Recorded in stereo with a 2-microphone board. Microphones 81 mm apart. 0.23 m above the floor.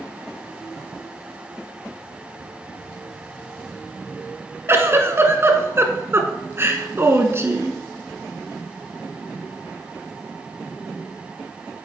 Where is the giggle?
35° right (ahead or behind), 1.0 m.